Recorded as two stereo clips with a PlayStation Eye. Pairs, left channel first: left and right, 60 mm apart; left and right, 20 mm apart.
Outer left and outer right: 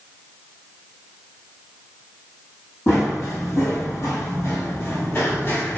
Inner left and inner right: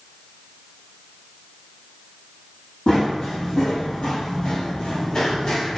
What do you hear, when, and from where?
2.9 s running footsteps: 50° left (ahead or behind), 1.9 m; by 5.8 s 30° left (ahead or behind), 1.1 m